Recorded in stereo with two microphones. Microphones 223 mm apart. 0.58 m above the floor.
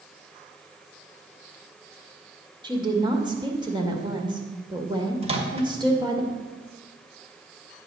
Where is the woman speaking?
20° right (ahead or behind), 2.0 m.